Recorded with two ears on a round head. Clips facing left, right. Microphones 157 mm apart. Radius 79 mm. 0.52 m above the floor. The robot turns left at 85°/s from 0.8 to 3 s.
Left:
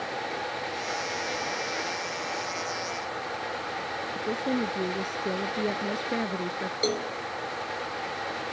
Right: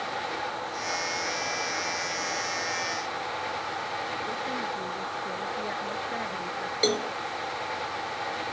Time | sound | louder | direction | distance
4.2 | a woman speaking | left 5 dB | 55° left (ahead or behind) | ?
6.8 | a cowbell | right 2 dB | 10° right (ahead or behind) | ?